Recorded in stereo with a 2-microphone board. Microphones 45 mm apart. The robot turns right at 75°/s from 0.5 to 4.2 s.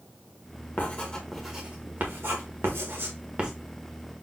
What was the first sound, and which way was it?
Writing, 45° left (ahead or behind).